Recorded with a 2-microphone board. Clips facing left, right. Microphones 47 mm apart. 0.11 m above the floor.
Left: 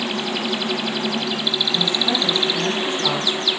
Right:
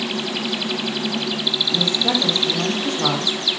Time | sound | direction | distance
1.7 | a woman speaking | 65° right (ahead or behind) | 6 m